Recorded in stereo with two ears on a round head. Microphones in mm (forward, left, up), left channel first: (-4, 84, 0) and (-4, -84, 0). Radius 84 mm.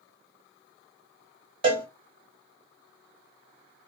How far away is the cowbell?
About 0.8 m.